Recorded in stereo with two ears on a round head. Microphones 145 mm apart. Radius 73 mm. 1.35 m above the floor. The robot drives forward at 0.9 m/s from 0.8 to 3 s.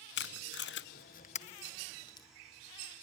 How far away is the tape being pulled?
About 0.7 m.